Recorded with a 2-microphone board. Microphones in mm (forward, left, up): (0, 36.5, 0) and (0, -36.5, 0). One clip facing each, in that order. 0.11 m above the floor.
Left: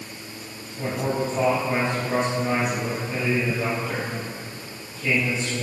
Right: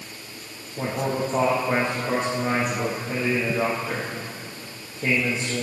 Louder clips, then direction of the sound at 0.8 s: Even; 55° right (ahead or behind).